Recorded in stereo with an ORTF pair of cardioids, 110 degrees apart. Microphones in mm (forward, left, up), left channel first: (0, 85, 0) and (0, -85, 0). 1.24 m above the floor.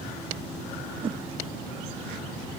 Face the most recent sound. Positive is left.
turn(degrees=-30)